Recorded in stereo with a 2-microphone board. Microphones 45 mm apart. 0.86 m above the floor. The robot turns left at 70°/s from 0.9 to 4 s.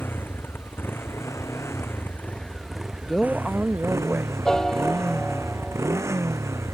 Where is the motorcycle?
130° left; by 6.8 s 90° right.